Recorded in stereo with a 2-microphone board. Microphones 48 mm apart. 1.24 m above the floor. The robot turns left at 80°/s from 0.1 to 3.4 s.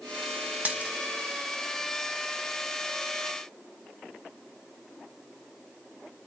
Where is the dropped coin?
30° right (ahead or behind), 0.7 m; by 0.9 s 15° right (ahead or behind), 0.7 m.